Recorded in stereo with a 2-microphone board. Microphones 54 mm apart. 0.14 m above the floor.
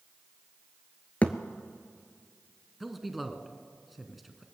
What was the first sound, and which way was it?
A thud, 30° left (ahead or behind).